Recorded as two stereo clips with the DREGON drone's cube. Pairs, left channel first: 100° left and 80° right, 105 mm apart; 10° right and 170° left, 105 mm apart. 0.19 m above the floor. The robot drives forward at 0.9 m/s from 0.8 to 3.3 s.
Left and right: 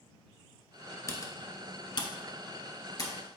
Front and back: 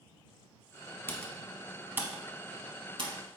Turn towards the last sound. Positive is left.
turn(degrees=150)